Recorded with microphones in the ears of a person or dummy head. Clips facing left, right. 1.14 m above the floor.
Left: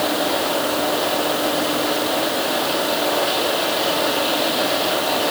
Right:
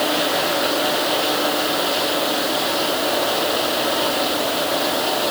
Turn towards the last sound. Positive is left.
No sound to turn to.